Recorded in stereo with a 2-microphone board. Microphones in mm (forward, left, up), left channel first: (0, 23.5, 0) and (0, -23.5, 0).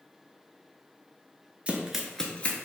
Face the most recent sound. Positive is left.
turn(degrees=40)  # may be behind; listen again after turning